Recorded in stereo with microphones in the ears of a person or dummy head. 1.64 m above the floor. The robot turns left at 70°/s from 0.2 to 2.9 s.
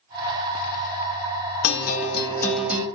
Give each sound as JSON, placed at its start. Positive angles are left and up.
{"t": 1.6, "sound": "a guitar", "azimuth_deg": 65, "distance_m": 0.8}